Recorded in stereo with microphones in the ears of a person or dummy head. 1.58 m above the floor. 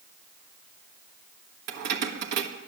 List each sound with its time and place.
1.7 s keys jangling: 60° right (ahead or behind), 1.3 m